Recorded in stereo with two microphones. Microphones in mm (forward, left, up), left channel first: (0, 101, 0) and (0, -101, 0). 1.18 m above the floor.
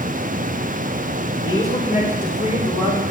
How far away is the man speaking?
About 4.5 m.